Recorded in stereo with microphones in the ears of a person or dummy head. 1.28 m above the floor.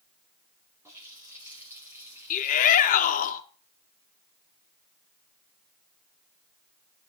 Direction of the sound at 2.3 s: 40° left (ahead or behind).